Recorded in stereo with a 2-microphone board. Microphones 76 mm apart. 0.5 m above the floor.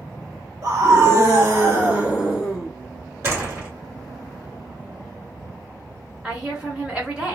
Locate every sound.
0.6 s a scream: 45° right (ahead or behind), 1.4 m; by 2.7 s centre (ahead or behind), 1.0 m
3.2 s a door slam: 35° right (ahead or behind), 1.6 m
6.2 s a woman speaking: 15° right (ahead or behind), 1.8 m